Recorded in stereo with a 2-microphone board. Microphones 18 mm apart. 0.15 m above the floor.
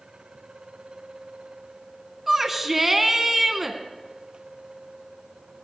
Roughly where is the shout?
Centre.